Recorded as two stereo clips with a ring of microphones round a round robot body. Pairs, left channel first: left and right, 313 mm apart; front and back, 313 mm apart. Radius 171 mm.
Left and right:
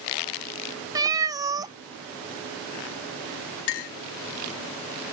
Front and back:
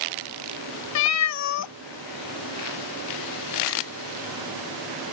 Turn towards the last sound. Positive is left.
turn(degrees=105)